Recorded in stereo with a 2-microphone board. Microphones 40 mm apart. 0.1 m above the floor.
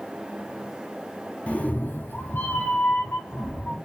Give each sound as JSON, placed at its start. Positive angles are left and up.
{"t": 1.5, "sound": "a cat meowing", "side_deg": 35, "distance_m": 0.8}